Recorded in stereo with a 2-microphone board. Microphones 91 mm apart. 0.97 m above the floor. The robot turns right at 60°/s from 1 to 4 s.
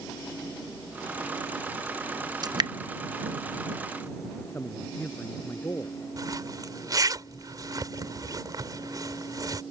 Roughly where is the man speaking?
Left.